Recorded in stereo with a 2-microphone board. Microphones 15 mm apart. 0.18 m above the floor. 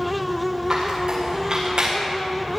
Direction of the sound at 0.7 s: 60° right (ahead or behind).